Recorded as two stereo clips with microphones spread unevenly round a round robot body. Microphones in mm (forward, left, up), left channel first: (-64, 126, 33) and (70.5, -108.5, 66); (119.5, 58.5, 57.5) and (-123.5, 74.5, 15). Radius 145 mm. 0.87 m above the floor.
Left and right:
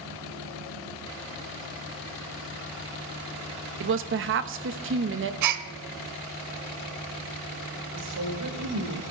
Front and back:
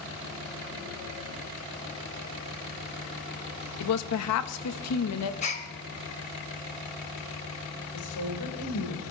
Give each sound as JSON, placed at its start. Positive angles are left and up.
{"t": 3.8, "sound": "a woman speaking", "azimuth_deg": -15, "distance_m": 1.0}
{"t": 5.4, "sound": "a gasp", "azimuth_deg": -65, "distance_m": 1.0}
{"t": 7.9, "sound": "a woman speaking", "azimuth_deg": -30, "distance_m": 3.0}